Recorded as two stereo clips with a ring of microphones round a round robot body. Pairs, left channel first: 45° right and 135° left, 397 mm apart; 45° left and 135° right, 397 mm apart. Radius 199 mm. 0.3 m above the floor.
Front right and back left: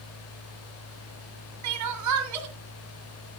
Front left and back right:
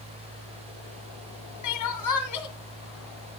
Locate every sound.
1.6 s crying: 90° left, 2.0 m